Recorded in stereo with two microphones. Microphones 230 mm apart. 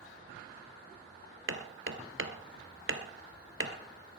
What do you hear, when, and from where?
1.5 s hammering: 60° right (ahead or behind), 1.3 m